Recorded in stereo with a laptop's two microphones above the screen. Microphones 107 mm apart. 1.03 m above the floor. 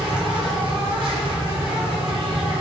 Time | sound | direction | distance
0.0 | an insect | 50° right (ahead or behind) | 2 m